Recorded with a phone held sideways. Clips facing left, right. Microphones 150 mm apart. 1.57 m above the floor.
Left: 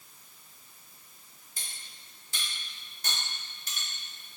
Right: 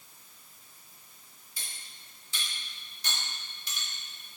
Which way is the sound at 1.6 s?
50° left (ahead or behind).